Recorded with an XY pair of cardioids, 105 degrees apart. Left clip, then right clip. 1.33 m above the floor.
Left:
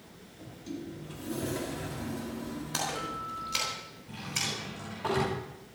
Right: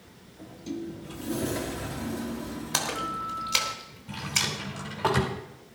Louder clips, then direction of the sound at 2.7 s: Right 5 dB; 60° right.